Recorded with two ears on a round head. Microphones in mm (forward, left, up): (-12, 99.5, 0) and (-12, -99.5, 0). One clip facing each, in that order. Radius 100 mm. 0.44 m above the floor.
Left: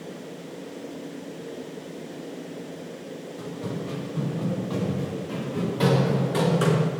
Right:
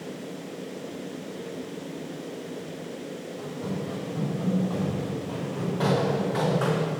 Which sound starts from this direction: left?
Running footsteps, at 3.4 s.